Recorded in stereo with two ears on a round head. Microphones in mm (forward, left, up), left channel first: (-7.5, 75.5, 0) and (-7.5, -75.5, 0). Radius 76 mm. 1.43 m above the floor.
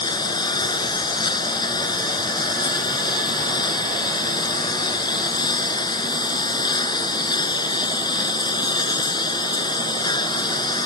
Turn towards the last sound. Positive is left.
turn(degrees=30)  # may be behind; listen again after turning